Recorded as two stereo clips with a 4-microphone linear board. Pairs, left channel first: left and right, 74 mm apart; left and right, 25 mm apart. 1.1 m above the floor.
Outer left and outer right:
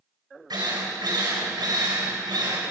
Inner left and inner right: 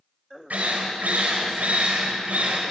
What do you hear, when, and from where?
0.5 s a drill: 85° right, 6 m